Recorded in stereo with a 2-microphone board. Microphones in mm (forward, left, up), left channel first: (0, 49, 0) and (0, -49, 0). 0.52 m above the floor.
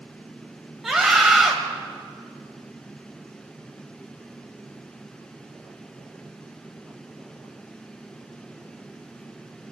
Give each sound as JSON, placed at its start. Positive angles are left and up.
{"t": 0.8, "sound": "a scream", "side_deg": -5, "distance_m": 2.5}